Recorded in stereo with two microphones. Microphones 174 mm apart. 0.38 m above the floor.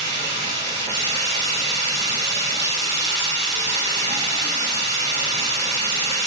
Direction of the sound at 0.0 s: 85° left.